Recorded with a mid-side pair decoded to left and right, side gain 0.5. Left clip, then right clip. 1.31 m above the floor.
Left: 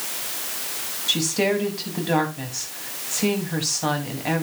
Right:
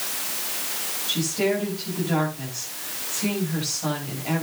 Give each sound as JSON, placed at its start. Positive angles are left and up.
{"t": 1.1, "sound": "a woman speaking", "azimuth_deg": 55, "distance_m": 7.5}